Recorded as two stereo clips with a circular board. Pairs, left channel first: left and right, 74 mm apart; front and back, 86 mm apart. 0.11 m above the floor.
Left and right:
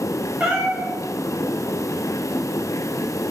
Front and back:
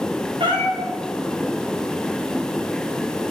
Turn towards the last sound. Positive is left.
turn(degrees=-165)